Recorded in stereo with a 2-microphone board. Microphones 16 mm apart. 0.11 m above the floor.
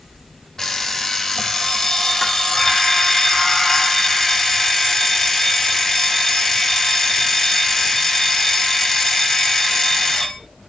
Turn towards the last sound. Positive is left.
turn(degrees=25)  # may be behind; listen again after turning